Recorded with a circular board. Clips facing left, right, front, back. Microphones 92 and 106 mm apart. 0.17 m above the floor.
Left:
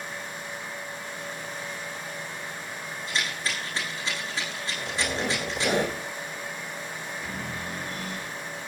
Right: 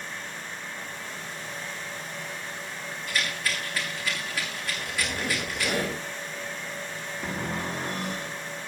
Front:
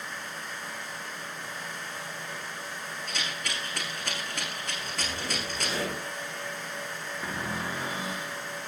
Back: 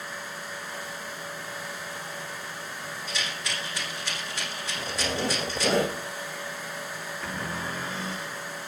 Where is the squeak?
155° left, 5.5 m.